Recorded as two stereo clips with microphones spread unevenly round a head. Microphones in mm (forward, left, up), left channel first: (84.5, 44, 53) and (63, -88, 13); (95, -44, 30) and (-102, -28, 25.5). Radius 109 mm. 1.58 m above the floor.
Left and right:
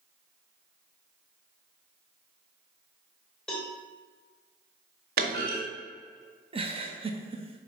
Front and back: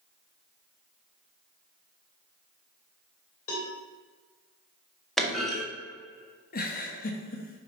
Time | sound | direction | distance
3.5 | a cowbell | 5° left | 2.5 m
5.2 | a clunk | 95° right | 1.6 m
6.5 | a giggle | 45° right | 1.1 m